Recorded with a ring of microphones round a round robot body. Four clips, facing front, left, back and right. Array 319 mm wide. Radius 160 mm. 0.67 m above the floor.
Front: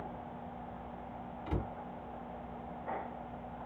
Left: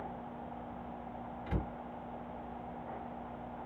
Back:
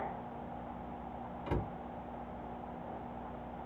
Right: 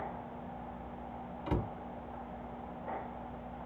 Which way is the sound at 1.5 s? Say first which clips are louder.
Right 5 dB, back 1 dB; 115° right.